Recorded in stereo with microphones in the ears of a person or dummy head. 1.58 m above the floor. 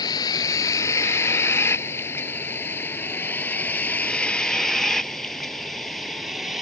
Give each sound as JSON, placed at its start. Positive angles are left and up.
{"t": 0.0, "sound": "a vehicle", "side_deg": 20}